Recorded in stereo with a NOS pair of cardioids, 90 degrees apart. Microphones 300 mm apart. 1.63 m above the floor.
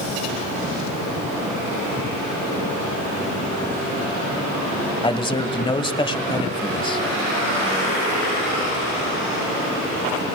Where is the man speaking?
15° left, 1.3 m.